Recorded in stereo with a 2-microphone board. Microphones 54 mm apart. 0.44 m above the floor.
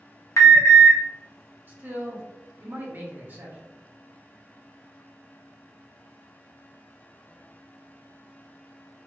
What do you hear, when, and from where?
0.4 s an alarm: 60° left (ahead or behind), 0.8 m
1.7 s a man speaking: 40° right (ahead or behind), 0.9 m